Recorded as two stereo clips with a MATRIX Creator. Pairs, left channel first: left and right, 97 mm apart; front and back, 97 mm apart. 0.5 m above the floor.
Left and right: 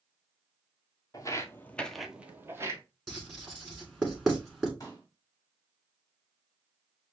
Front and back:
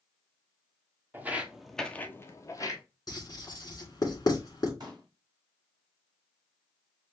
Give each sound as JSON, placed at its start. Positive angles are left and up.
{"t": 1.1, "sound": "footsteps", "azimuth_deg": 120, "distance_m": 0.6}
{"t": 3.1, "sound": "writing", "azimuth_deg": -5, "distance_m": 1.4}
{"t": 4.8, "sound": "a pop", "azimuth_deg": 140, "distance_m": 1.6}